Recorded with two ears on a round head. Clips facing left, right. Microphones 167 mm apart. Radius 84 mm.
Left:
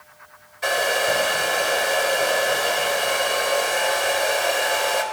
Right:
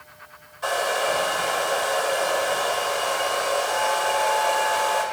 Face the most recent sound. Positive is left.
turn(degrees=20)  # may be behind; listen again after turning